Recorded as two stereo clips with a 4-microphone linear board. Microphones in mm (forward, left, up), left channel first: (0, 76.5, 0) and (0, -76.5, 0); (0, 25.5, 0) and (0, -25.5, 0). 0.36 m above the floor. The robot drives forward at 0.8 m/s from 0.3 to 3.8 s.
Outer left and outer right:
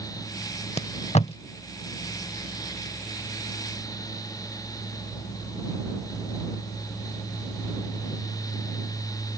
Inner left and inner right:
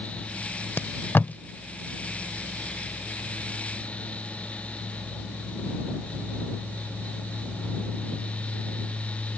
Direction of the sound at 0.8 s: 45° left (ahead or behind).